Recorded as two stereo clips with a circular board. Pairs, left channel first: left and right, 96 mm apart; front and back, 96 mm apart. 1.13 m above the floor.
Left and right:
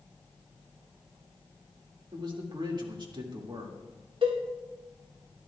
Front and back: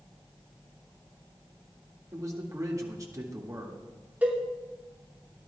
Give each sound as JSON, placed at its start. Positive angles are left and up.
{"t": 2.1, "sound": "a man speaking", "azimuth_deg": -125, "distance_m": 2.0}
{"t": 4.2, "sound": "a cowbell", "azimuth_deg": -110, "distance_m": 2.5}